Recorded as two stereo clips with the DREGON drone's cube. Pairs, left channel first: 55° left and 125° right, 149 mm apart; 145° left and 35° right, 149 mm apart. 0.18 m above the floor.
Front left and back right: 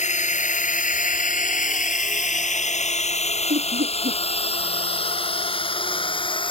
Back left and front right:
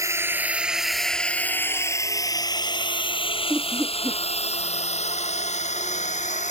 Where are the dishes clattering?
No dishes clattering in this recording.